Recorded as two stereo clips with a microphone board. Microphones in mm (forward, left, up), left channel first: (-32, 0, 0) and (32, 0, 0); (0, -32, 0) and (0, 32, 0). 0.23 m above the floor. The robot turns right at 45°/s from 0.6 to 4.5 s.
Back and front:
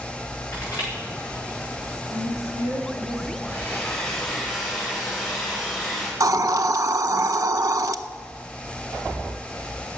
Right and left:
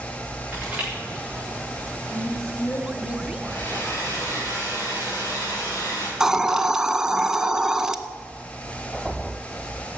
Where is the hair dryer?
130° right, 5.5 m; by 6.1 s 85° right, 5.5 m.